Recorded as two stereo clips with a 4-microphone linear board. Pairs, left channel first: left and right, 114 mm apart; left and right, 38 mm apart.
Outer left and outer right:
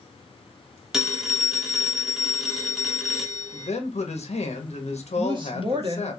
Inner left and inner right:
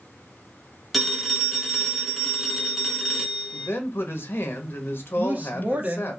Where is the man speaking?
70° left (ahead or behind), 1.0 m.